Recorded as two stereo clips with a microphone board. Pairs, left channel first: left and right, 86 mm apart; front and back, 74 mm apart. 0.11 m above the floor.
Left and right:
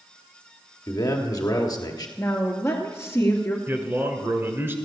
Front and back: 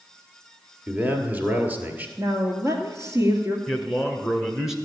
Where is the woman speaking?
145° left, 2 m.